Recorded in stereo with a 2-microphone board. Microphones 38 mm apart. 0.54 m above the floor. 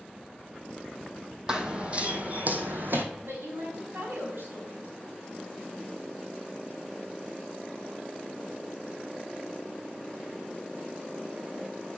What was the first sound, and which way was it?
Running footsteps, 20° right (ahead or behind).